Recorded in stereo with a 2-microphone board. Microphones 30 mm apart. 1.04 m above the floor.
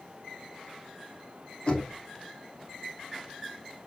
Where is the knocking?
40° left (ahead or behind), 2.5 m.